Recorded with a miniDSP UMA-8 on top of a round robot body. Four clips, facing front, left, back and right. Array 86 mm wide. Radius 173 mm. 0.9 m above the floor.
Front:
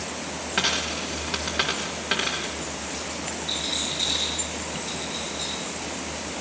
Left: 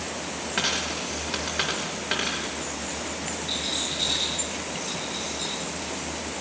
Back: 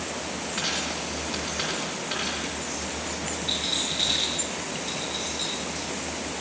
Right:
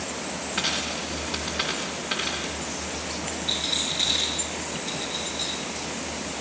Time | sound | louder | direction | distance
0.6 | a dropped coin | left 2 dB, front 6 dB | 30° left | 0.6 m
3.5 | a rattle | even, even | 130° right | 6.5 m